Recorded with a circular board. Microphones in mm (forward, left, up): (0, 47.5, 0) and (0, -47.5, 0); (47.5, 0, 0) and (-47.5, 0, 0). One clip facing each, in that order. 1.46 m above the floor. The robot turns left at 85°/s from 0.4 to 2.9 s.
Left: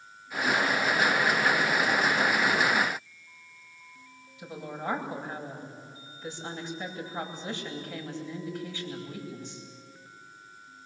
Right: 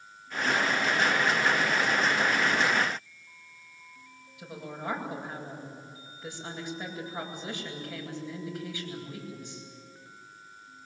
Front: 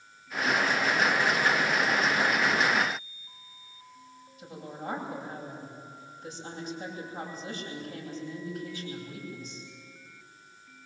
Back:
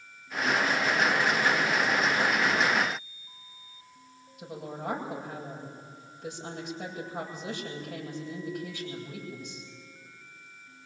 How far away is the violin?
I don't hear a violin.